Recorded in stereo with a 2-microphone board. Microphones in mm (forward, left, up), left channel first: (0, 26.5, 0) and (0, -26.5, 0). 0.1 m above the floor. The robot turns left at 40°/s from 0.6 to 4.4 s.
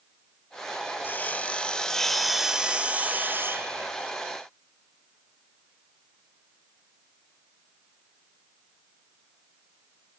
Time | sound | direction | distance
1.0 | sawing | 45° left | 1.2 m